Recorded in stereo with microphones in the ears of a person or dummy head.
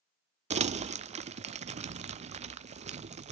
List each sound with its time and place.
0.5 s crumpling: 35° right (ahead or behind), 0.5 m